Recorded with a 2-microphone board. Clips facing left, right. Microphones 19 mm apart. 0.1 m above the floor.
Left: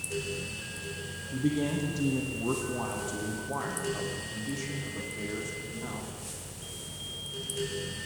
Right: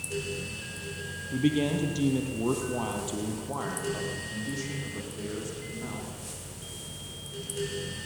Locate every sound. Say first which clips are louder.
1.3 s a man speaking: right 3 dB; 60° right (ahead or behind), 3 m; by 6.1 s 10° right (ahead or behind), 7 m